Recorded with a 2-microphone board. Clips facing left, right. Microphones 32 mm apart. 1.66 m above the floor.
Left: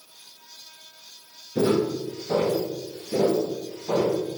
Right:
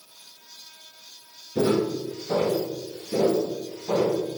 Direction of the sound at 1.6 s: 15° left (ahead or behind).